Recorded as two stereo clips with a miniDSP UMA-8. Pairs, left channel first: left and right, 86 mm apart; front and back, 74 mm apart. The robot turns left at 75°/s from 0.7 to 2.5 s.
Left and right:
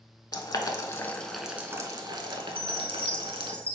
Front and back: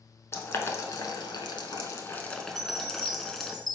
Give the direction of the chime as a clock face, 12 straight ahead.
7 o'clock.